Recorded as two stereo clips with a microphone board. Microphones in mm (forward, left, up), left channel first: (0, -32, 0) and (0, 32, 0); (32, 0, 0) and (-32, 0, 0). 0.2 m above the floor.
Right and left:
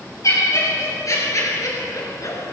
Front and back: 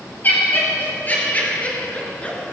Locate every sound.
0.2 s laughter: 60° right, 4.5 m; by 2.5 s 70° right, 2.5 m